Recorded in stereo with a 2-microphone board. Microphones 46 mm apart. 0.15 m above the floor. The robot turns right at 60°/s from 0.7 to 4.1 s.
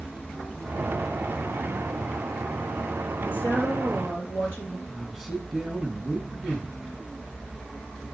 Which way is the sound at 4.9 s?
Centre (ahead or behind).